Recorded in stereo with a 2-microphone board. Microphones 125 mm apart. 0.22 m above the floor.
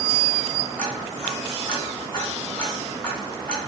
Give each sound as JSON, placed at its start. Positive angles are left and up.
{"t": 0.8, "sound": "ticking", "side_deg": 10, "distance_m": 1.3}